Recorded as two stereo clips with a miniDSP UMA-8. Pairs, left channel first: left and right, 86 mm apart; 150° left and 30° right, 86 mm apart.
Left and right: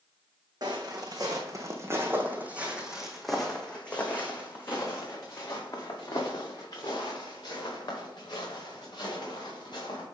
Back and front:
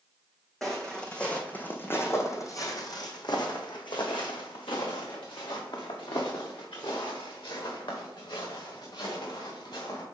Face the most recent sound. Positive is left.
turn(degrees=125)